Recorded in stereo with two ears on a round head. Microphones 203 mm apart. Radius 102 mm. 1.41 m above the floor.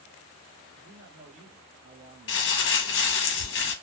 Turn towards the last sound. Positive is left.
turn(degrees=50)  # may be behind; listen again after turning